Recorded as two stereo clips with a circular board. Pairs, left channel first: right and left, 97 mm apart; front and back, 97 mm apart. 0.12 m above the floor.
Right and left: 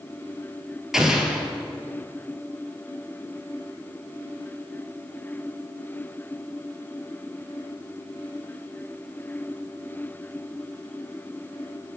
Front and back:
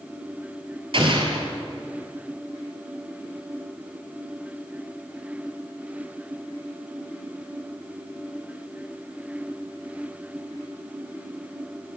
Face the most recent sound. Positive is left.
turn(degrees=175)